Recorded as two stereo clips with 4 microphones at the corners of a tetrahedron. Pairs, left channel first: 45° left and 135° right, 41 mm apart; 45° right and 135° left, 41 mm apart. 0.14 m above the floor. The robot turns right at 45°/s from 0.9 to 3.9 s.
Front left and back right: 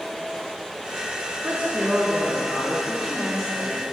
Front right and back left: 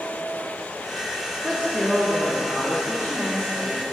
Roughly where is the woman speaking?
Right.